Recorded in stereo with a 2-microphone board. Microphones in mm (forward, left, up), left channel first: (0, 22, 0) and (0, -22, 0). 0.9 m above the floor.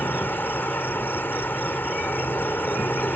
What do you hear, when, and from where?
0.0 s an insect: 55° left (ahead or behind)